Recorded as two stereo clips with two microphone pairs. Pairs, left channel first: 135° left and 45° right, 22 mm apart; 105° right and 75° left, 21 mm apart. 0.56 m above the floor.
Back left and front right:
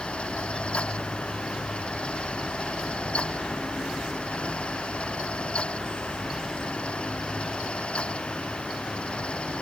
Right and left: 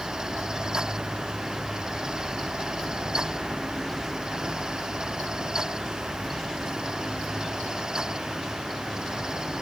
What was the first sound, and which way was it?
Only background noise.